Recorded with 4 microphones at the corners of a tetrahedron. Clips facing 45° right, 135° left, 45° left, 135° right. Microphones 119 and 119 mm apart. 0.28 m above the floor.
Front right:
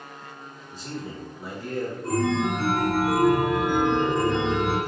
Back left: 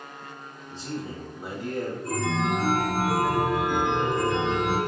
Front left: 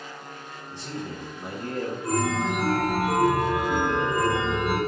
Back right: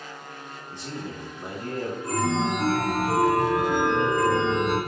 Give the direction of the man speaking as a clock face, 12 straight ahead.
6 o'clock.